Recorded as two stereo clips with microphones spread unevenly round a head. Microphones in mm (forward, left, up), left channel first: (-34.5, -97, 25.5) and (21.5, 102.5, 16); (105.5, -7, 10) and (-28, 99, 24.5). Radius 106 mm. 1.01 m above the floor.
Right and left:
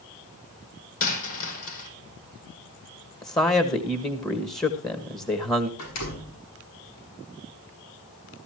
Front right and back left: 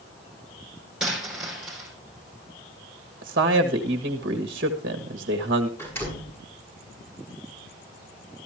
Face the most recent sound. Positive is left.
turn(degrees=-120)